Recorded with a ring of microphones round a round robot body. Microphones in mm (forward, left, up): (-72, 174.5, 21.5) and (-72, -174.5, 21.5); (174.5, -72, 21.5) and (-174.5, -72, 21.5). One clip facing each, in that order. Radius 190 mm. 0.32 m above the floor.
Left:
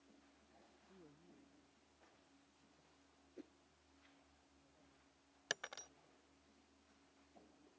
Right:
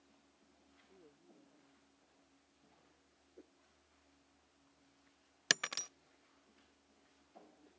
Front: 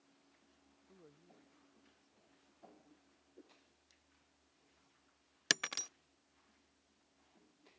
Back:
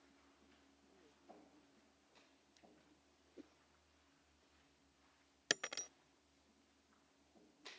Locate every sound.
0.9 s a man speaking: 35° left
3.4 s a whoosh: 130° left
5.5 s breaking glass: 60° right